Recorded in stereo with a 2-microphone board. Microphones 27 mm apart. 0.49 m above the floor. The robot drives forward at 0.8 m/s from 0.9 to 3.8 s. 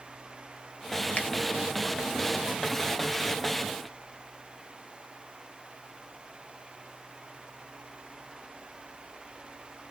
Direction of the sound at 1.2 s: 60° left (ahead or behind).